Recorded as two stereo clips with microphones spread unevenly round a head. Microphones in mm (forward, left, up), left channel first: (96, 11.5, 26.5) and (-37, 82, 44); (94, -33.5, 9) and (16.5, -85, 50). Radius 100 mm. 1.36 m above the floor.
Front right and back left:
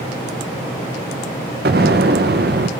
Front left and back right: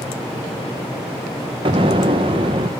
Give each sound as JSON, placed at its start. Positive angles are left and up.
{"t": 1.6, "sound": "an explosion", "azimuth_deg": -170, "distance_m": 0.6}